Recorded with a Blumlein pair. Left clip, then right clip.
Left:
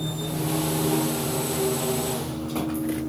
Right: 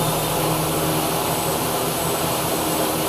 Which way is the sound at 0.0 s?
55° right.